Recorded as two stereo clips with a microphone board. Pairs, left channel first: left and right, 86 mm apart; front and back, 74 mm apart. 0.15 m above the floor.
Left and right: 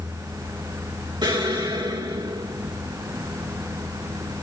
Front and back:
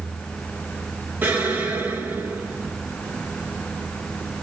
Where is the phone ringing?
I don't hear a phone ringing.